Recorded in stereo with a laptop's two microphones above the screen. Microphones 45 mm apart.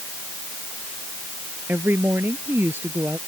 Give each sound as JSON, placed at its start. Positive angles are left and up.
{"t": 1.7, "sound": "a woman speaking", "side_deg": -50}